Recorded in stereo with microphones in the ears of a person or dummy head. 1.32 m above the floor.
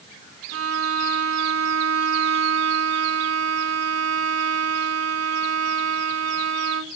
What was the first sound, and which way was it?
A violin, 80° right.